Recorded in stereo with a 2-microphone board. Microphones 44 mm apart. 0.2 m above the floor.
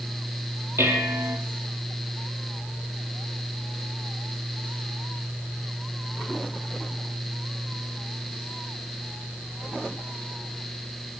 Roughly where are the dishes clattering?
Right.